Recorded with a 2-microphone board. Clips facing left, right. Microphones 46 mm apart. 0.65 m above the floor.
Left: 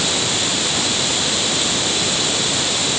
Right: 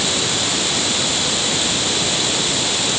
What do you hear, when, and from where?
Only background noise.